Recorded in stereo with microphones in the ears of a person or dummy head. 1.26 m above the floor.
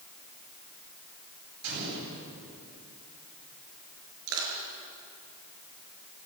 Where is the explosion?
75° right (ahead or behind), 9.5 m.